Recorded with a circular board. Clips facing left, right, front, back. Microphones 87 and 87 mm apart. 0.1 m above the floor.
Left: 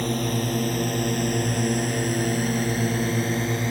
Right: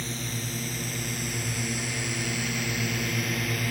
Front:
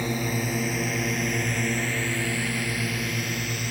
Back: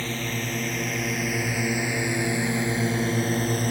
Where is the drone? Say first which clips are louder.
Left 10 dB, front 3 dB; 75° left; by 3.7 s 145° left.